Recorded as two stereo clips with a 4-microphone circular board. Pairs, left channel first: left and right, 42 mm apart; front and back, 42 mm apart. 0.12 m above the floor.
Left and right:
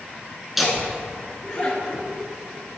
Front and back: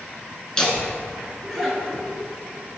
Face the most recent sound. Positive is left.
turn(degrees=80)